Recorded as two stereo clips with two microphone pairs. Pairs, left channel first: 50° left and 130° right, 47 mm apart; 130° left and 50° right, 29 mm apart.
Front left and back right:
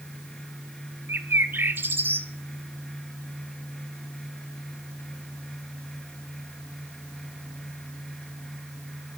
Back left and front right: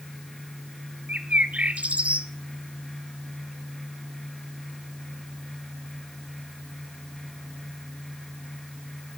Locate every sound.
1.1 s a bird: 90° right, 0.7 m